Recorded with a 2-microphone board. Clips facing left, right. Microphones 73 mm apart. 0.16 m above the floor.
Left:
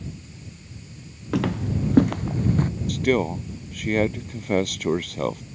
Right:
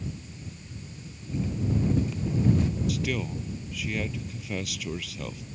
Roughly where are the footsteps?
Left.